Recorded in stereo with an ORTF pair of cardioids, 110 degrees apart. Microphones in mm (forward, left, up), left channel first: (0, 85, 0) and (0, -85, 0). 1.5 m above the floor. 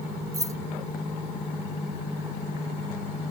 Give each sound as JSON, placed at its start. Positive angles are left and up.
{"t": 0.3, "sound": "keys jangling", "azimuth_deg": -20}